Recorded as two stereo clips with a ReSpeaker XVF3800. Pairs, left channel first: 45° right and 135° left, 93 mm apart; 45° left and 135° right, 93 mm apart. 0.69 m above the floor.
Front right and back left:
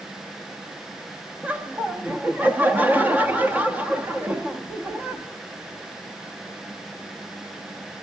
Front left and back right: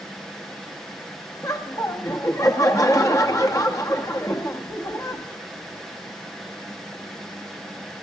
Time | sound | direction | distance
1.4 | laughter | 70° left | 0.9 m